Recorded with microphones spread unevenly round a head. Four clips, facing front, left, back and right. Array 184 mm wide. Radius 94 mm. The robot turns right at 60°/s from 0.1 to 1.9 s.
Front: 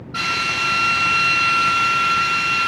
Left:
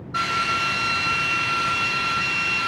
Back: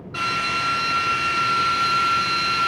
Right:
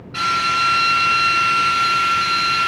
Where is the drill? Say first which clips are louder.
Right 5 dB, front 1 dB; 135° left, 1.2 m; by 2.7 s 120° right, 1.2 m.